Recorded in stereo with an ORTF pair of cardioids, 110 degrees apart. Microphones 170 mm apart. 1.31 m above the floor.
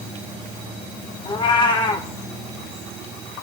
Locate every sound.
1.2 s a cat meowing: 30° left, 2.0 m